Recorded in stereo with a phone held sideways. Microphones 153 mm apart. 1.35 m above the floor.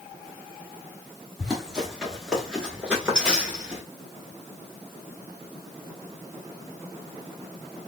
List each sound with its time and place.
1.4 s running footsteps: centre (ahead or behind), 1.6 m; by 3.8 s 5° right (ahead or behind), 1.4 m